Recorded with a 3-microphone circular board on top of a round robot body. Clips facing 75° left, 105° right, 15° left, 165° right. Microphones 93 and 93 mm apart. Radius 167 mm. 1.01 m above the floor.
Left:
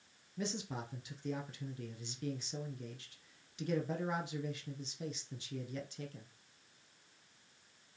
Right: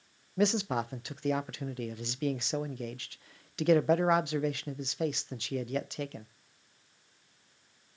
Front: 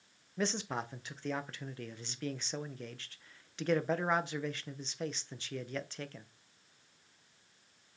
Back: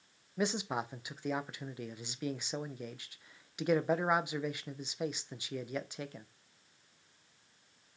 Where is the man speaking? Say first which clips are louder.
Right 12 dB, back 2 dB; 90° right, 0.6 m.